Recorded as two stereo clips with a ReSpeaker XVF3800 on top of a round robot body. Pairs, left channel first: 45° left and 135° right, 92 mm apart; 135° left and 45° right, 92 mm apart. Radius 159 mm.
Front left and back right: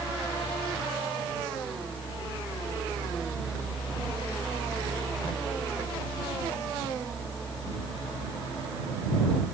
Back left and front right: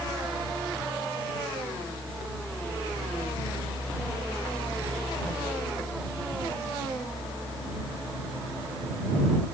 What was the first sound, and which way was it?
Only background noise.